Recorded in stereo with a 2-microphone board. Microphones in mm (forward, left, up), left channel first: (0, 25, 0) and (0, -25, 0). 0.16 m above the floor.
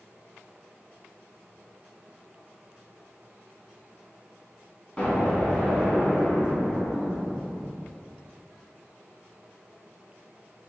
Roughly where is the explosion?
Left.